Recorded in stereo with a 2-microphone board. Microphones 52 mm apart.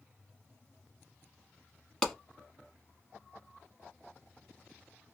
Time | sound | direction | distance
2.0 | a clap | 10° left (ahead or behind) | 1.1 m